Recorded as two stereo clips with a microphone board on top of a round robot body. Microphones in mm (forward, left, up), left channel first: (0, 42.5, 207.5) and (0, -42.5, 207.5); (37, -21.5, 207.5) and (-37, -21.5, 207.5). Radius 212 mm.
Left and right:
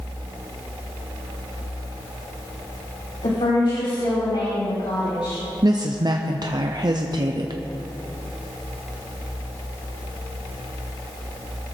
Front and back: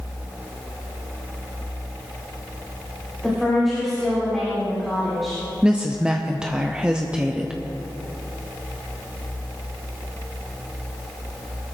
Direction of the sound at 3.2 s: 90° left.